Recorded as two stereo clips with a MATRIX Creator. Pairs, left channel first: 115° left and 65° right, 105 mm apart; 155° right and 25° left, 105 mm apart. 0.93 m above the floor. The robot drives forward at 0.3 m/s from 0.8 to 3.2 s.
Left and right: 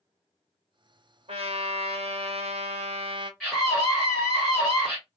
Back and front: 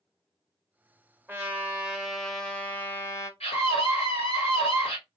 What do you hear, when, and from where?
1.3 s a trumpet: 50° right, 0.8 m; by 3.3 s 95° right, 0.6 m
3.4 s a scream: 160° right, 1.0 m